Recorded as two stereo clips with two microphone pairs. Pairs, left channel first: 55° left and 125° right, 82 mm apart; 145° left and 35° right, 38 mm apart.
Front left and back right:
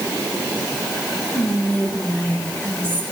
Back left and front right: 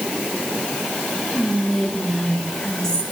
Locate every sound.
1.3 s whispering: 105° left, 1.1 m